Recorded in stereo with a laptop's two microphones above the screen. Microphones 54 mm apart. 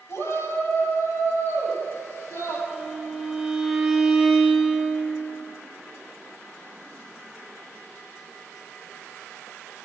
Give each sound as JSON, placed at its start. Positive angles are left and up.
{"t": 0.1, "sound": "a shout", "side_deg": 60, "distance_m": 7.0}
{"t": 2.7, "sound": "a violin", "side_deg": 0, "distance_m": 2.5}